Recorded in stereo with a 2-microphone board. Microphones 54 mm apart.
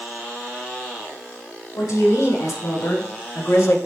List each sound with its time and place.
1.7 s a woman speaking: 80° left, 4 m; by 3.8 s 60° left (ahead or behind), 1.3 m